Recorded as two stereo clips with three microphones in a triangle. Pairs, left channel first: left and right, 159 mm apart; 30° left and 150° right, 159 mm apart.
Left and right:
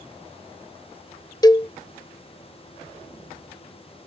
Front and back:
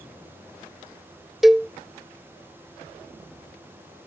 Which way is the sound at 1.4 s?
125° left.